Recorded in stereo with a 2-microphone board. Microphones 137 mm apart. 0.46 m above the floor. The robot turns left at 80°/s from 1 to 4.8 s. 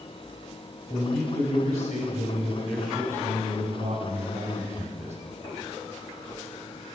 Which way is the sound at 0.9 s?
145° left.